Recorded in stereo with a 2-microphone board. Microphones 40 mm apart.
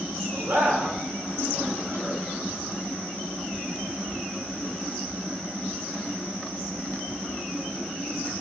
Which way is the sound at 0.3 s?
70° right (ahead or behind).